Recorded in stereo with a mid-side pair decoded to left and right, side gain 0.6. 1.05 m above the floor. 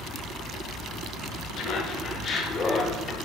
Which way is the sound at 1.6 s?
60° left.